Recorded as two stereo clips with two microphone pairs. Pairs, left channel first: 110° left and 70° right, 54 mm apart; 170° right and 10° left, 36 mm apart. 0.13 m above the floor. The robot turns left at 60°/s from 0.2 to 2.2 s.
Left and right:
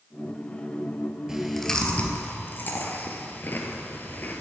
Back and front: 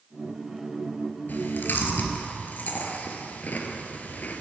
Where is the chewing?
145° right, 1.5 m; by 4.4 s 160° left, 1.5 m.